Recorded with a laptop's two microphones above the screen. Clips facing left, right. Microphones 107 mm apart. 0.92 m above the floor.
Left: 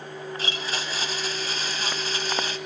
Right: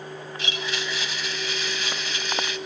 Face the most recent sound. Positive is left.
turn(degrees=40)  # may be behind; listen again after turning